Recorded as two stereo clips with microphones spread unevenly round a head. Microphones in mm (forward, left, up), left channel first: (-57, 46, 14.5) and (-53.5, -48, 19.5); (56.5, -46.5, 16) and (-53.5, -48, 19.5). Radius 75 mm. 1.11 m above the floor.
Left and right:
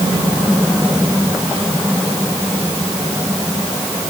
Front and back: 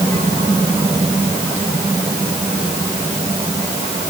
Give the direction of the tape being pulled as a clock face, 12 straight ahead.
I don't hear tape being pulled.